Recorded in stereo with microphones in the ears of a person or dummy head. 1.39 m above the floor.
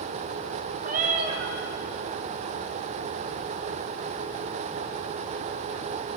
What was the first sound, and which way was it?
A cat meowing, 50° right (ahead or behind).